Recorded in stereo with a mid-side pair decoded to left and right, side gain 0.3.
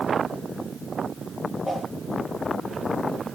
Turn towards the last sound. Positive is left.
turn(degrees=20)